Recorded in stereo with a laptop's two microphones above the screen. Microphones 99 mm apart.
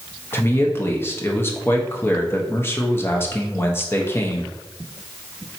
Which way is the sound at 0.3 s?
25° left (ahead or behind).